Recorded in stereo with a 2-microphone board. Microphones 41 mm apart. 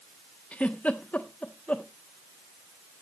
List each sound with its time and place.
0.5 s a giggle: 35° left (ahead or behind), 1.1 m